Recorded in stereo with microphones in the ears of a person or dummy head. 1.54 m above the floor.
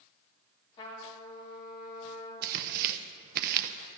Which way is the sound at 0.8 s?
25° left (ahead or behind).